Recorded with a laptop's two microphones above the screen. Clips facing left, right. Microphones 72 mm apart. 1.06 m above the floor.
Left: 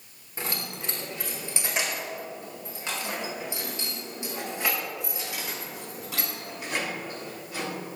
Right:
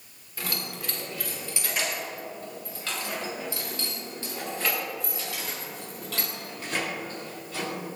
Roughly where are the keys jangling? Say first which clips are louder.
Even; left.